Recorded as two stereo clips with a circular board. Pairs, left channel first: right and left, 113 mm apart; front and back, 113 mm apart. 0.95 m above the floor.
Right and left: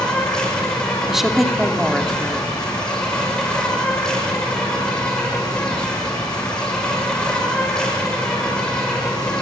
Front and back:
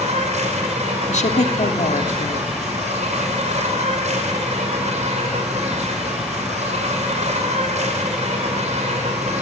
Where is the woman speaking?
5° left, 2 m.